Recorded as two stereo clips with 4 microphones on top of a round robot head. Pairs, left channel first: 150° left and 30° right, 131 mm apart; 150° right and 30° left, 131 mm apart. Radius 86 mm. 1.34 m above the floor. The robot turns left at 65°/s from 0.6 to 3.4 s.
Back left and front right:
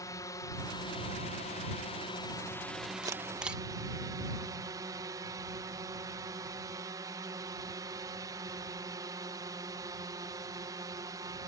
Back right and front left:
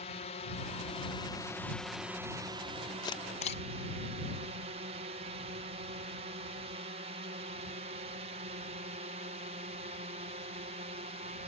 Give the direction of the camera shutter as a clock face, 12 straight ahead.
3 o'clock.